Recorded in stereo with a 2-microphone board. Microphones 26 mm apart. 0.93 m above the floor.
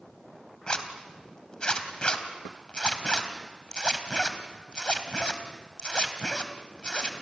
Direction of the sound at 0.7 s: 35° left (ahead or behind).